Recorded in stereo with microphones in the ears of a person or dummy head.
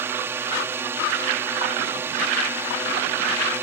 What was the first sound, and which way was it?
A drone, 15° right (ahead or behind).